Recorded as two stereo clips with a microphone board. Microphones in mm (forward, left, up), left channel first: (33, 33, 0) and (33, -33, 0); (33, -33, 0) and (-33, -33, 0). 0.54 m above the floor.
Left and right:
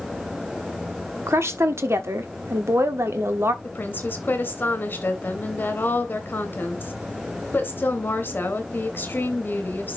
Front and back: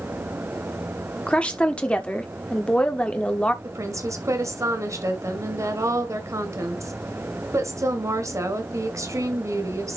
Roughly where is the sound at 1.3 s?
Ahead right.